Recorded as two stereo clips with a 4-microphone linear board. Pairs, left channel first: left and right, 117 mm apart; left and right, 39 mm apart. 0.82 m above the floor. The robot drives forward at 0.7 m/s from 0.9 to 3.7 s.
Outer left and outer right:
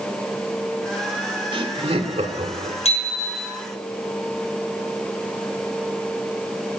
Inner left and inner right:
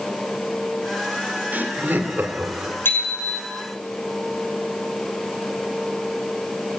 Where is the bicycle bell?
65° left (ahead or behind), 7.5 m; by 3.5 s 60° left (ahead or behind), 8 m.